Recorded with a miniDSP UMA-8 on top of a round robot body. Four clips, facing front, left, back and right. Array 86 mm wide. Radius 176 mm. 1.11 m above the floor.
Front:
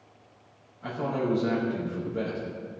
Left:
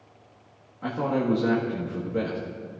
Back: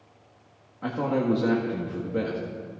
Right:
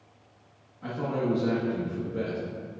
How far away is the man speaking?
About 1.6 m.